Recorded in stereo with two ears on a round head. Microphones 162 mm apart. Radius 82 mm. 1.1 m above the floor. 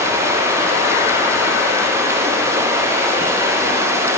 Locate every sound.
0.0 s running water: 15° right (ahead or behind), 0.7 m